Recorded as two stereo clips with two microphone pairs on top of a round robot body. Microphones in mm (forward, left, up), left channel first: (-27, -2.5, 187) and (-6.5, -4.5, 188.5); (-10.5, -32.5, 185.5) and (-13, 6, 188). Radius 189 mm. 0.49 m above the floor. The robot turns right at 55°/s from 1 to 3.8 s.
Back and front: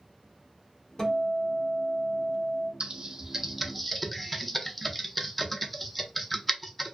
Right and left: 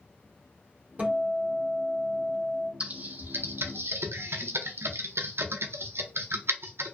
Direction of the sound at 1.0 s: 135° left.